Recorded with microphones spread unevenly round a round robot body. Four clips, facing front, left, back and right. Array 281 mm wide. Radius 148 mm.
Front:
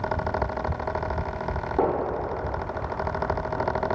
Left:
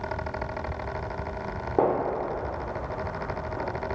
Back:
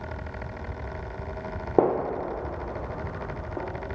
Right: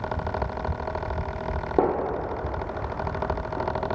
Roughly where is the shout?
No shout in this recording.